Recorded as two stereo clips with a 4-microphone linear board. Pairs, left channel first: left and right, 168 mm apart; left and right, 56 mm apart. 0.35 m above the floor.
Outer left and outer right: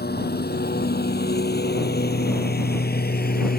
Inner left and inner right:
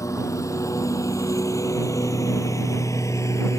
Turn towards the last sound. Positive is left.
turn(degrees=75)  # may be behind; listen again after turning